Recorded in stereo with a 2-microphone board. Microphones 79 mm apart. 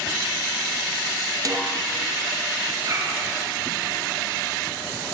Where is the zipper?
50° right (ahead or behind), 7.5 m.